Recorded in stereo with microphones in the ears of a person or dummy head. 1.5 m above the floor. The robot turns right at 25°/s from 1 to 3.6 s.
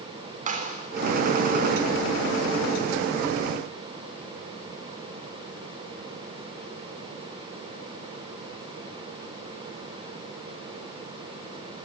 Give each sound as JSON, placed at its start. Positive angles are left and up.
{"t": 0.5, "sound": "a clap", "side_deg": -45, "distance_m": 3.0}